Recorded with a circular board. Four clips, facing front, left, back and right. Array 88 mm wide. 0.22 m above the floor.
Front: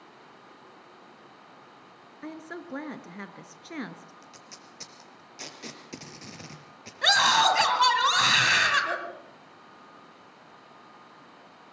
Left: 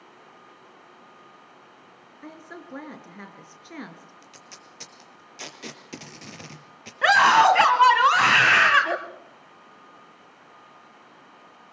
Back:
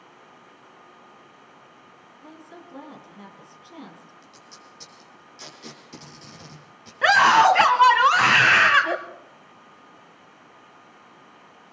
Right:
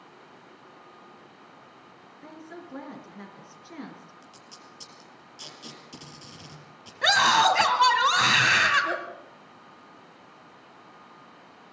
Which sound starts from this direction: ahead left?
A woman speaking, at 2.2 s.